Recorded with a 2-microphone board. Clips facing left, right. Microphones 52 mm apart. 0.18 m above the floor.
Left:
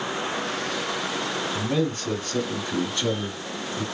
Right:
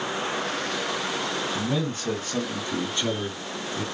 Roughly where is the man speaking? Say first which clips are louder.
Left 2 dB; centre.